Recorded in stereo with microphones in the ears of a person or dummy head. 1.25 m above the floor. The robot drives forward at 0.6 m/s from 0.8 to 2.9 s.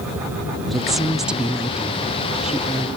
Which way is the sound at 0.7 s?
5° right (ahead or behind).